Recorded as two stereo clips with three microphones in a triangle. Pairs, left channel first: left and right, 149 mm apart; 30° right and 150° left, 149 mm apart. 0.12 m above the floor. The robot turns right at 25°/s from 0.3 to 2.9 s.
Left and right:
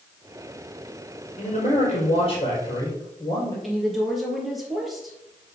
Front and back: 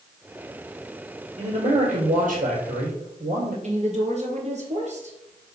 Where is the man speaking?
115° left, 3.5 m; by 3.5 s 155° left, 3.5 m.